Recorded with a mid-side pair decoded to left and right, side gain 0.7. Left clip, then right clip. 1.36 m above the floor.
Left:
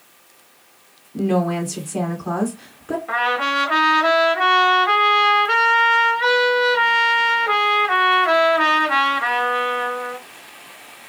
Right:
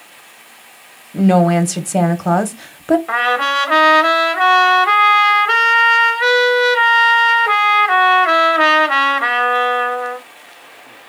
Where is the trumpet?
30° right, 0.8 m.